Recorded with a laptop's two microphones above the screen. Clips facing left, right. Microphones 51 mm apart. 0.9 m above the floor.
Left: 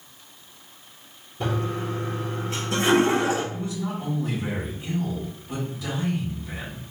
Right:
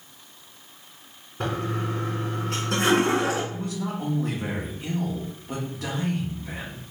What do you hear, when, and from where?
1.4 s a toilet flushing: 65° right (ahead or behind), 1.6 m
3.5 s a man speaking: 55° right (ahead or behind), 1.6 m